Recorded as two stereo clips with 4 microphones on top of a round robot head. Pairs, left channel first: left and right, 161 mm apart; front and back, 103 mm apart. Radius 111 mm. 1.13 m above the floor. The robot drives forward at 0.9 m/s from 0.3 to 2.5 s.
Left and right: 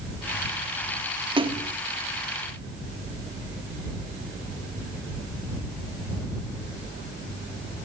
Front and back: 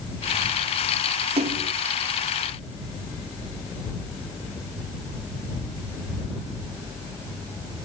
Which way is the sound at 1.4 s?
150° right.